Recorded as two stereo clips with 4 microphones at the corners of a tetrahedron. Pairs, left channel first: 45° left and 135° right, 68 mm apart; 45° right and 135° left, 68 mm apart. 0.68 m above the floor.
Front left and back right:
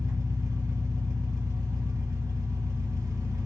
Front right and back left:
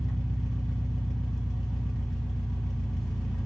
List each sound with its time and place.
0.0 s an engine running: 140° right, 1.5 m